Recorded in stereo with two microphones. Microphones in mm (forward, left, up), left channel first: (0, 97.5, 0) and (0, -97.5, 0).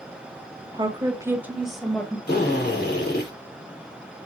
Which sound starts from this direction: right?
A woman speaking, at 0.7 s.